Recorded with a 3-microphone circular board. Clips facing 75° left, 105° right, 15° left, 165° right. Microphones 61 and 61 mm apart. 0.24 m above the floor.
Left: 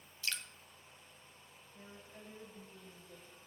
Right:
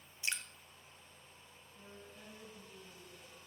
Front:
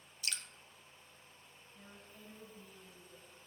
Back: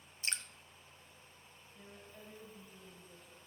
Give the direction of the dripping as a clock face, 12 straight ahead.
5 o'clock.